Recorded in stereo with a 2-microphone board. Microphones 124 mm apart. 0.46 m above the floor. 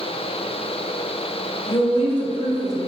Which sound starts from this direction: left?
A woman speaking, at 1.7 s.